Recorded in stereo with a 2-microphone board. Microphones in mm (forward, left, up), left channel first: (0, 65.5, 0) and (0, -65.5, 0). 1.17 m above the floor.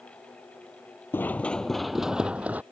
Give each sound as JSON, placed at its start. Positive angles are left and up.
{"t": 1.1, "sound": "running footsteps", "side_deg": 15}